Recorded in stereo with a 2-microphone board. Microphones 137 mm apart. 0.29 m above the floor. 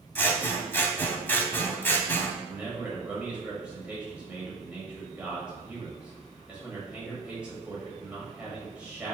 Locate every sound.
0.1 s scissors: 15° left (ahead or behind), 0.5 m
2.5 s a man speaking: 10° right (ahead or behind), 1.4 m